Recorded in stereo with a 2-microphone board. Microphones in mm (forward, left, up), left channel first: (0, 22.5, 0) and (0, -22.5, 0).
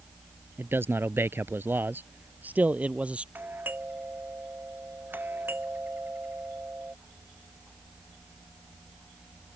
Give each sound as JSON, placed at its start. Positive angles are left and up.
{"t": 0.6, "sound": "a man speaking", "side_deg": -55}
{"t": 3.4, "sound": "a doorbell", "side_deg": -45}